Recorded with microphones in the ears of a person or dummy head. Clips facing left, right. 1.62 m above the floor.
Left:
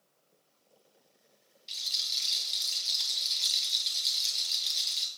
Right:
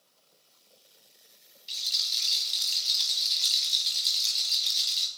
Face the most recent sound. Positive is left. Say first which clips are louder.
# right 3 dB
turn(degrees=0)  # may be behind; listen again after turning